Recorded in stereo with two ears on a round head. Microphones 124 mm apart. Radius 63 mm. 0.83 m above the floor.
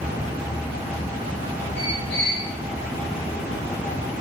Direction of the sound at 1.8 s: 80° left.